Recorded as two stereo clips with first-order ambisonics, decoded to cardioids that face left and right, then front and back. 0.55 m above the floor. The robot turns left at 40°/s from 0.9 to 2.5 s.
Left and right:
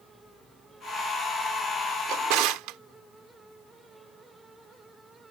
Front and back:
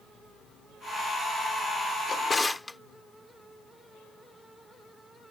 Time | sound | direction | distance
2.1 | a drawer | 65° right | ?